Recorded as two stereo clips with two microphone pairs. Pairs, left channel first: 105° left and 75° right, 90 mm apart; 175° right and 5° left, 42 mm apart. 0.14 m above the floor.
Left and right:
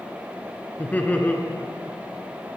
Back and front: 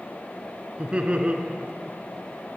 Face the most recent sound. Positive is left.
turn(degrees=45)